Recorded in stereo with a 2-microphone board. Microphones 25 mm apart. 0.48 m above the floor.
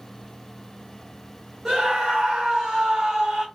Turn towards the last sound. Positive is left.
turn(degrees=-25)  # may be behind; listen again after turning